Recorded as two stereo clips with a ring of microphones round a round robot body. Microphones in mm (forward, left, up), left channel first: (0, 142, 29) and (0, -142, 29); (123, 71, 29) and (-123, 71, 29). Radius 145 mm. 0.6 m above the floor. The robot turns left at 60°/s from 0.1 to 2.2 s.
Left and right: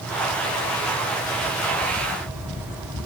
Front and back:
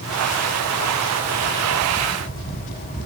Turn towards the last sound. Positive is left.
No sound to turn to.